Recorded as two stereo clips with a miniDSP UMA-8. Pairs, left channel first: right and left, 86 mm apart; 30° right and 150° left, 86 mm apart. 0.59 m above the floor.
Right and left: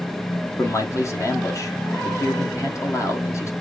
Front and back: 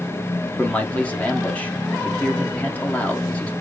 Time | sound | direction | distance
0.6 | a man speaking | 90° right | 1.1 m